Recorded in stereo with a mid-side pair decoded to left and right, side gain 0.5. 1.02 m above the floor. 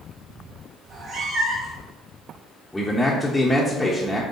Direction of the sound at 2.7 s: 10° left.